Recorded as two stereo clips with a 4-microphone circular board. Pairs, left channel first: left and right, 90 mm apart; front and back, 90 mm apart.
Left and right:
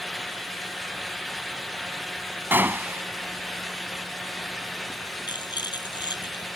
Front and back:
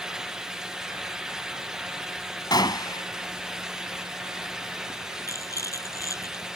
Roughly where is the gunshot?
Ahead right.